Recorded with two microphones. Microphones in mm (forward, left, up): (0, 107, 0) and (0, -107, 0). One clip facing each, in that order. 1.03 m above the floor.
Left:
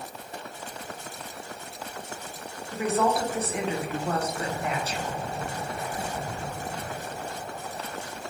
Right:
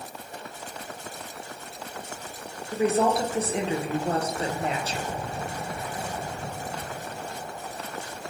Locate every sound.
2.7 s a woman speaking: 30° right (ahead or behind), 0.5 m